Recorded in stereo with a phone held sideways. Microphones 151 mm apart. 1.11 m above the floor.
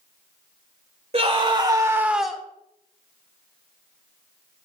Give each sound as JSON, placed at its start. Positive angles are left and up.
{"t": 1.1, "sound": "a scream", "side_deg": -40, "distance_m": 2.5}